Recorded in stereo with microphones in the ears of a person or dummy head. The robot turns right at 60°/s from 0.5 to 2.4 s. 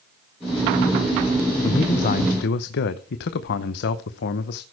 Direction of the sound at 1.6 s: 30° left.